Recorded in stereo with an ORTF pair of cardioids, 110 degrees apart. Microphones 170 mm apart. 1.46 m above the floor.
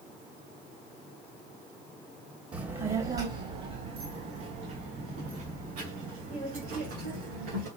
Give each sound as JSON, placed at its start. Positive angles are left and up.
{"t": 2.5, "sound": "a child speaking", "azimuth_deg": -25, "distance_m": 0.9}